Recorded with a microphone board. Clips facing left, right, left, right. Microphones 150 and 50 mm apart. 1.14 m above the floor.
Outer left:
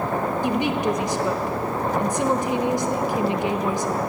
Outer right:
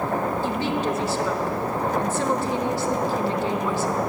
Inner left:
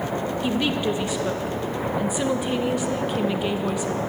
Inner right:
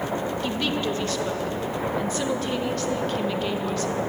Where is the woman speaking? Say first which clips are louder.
Outer left 2 dB, inner left 5 dB; 15° left (ahead or behind), 0.9 m.